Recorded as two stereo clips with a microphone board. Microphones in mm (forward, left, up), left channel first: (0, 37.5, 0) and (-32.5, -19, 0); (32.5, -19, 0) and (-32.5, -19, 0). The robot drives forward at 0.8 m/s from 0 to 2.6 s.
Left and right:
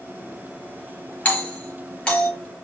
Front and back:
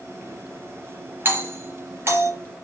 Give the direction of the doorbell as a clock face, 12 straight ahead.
8 o'clock.